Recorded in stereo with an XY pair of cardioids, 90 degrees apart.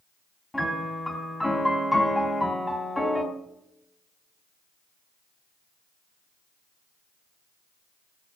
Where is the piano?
10° left, 3.5 m.